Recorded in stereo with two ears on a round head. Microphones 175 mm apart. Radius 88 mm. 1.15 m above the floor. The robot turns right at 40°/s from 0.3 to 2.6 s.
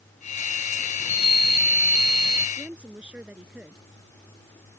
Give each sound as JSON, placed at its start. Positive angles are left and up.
{"t": 1.0, "sound": "a chime", "azimuth_deg": 135}
{"t": 2.6, "sound": "a woman speaking", "side_deg": -5}